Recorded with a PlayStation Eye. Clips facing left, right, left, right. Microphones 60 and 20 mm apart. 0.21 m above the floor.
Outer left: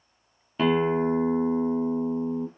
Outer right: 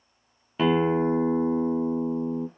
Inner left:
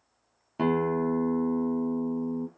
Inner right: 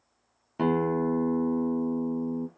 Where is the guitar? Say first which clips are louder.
Outer right 1 dB, even; 5° right (ahead or behind), 0.5 m.